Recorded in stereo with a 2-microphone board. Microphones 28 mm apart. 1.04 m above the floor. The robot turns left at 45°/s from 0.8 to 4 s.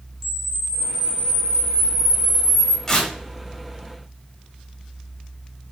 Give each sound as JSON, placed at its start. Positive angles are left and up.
{"t": 0.2, "sound": "a camera shutter", "azimuth_deg": 170, "distance_m": 0.8}
{"t": 2.9, "sound": "tearing paper", "side_deg": 10, "distance_m": 1.6}